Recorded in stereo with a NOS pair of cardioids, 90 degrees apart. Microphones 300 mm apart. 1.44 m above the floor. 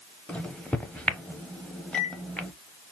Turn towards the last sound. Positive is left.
turn(degrees=5)